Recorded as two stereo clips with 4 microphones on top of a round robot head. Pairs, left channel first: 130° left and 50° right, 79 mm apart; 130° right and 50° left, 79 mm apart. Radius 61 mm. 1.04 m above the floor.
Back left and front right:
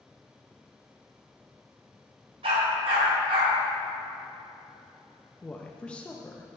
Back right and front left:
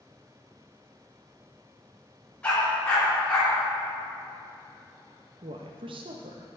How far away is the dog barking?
About 4 m.